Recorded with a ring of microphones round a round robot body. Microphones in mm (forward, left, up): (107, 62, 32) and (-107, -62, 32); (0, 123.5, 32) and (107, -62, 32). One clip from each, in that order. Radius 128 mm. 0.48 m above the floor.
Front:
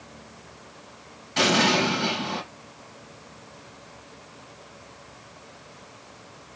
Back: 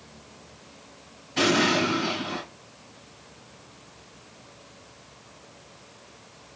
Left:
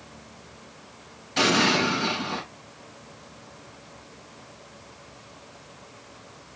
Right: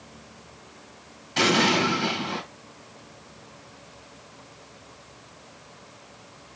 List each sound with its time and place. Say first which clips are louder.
1.4 s an explosion: front 2 dB, even; straight ahead, 5.5 m